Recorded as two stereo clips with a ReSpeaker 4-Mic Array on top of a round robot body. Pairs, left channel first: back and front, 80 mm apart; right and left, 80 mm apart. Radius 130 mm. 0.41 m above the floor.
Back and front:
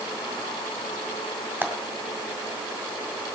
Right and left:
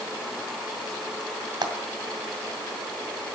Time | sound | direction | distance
1.6 | frying | 70° left | 2 m